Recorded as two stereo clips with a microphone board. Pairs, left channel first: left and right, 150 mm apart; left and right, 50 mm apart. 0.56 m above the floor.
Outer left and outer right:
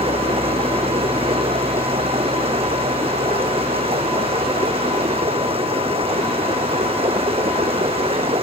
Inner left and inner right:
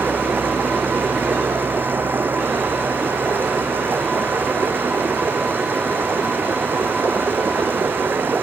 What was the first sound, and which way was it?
Running water, 40° right (ahead or behind).